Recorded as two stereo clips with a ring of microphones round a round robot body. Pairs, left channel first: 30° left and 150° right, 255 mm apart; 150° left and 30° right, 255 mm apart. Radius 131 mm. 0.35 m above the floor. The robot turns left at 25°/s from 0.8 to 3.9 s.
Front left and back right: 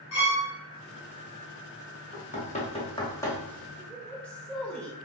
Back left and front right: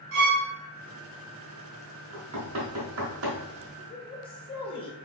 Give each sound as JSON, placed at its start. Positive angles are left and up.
{"t": 0.1, "sound": "a violin", "azimuth_deg": 10, "distance_m": 1.7}
{"t": 2.1, "sound": "knocking", "azimuth_deg": -20, "distance_m": 1.0}
{"t": 3.8, "sound": "a woman speaking", "azimuth_deg": 115, "distance_m": 0.9}